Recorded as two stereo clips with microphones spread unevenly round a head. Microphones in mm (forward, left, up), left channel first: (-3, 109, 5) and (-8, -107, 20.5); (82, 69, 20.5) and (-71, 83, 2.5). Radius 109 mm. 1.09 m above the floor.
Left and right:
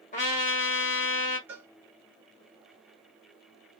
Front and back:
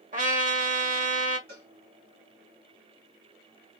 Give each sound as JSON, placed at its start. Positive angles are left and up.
{"t": 0.1, "sound": "a trumpet", "azimuth_deg": 140, "distance_m": 1.3}
{"t": 1.5, "sound": "a cowbell", "azimuth_deg": -175, "distance_m": 1.7}